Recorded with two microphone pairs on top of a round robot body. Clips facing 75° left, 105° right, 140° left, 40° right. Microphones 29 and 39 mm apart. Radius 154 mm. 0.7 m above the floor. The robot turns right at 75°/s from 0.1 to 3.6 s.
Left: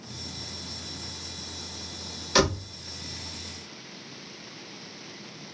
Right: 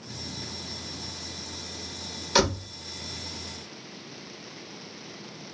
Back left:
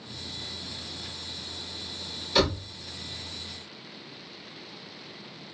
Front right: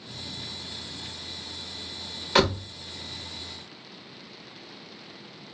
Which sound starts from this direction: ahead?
A door slam, at 2.4 s.